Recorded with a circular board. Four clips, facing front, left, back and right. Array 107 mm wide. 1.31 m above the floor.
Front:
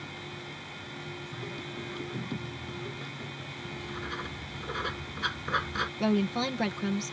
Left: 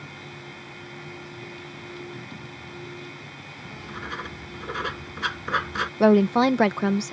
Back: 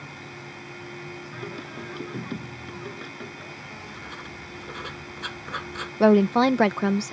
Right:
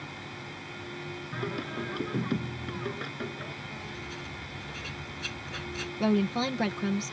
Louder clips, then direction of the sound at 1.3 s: Right 6 dB, back 4 dB; 110° right.